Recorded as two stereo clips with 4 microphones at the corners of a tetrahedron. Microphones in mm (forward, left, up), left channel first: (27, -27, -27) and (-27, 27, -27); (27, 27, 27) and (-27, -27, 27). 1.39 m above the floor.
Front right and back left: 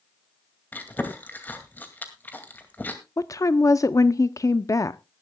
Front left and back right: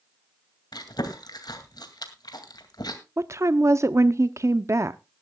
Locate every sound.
0.7 s chewing: 20° left, 2 m
3.2 s a woman speaking: 90° right, 0.5 m